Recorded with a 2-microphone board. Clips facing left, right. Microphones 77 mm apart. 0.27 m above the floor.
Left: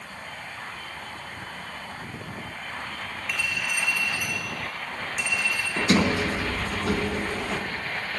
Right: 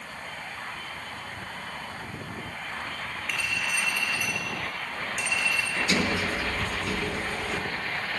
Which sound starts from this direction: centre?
A clink, at 3.3 s.